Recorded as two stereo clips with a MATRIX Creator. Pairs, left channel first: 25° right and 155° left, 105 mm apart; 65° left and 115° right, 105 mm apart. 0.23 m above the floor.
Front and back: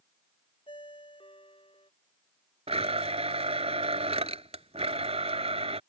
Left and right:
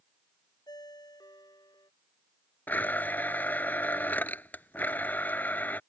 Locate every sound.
0.7 s a ringtone: 15° left
2.7 s a blender: 140° left